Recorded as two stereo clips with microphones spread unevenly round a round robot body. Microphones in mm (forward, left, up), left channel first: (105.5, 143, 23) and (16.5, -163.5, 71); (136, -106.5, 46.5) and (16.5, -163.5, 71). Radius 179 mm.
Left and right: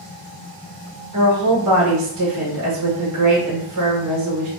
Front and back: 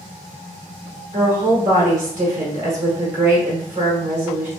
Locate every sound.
1.1 s a woman speaking: 140° right, 1.3 m